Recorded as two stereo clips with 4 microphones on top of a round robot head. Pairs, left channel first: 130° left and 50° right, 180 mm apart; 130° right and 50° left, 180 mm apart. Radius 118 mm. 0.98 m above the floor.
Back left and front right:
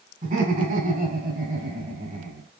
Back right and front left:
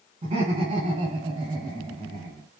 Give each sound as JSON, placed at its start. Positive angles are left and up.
{"t": 0.2, "sound": "laughter", "azimuth_deg": -10, "distance_m": 5.0}